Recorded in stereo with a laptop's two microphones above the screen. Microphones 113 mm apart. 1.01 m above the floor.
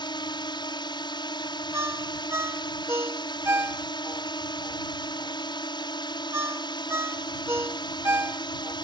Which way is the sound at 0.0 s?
45° left (ahead or behind).